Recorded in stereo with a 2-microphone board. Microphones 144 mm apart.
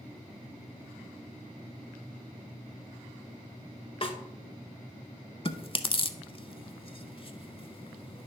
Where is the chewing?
40° left (ahead or behind), 0.6 m.